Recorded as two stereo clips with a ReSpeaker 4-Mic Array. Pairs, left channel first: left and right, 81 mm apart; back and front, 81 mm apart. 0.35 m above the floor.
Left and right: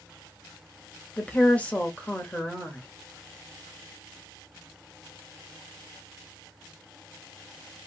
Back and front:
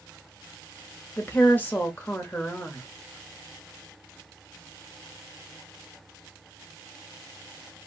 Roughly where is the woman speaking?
Behind left.